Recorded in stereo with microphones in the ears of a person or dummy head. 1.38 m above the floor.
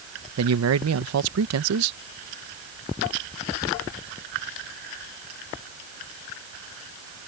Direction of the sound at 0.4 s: 75° right (ahead or behind).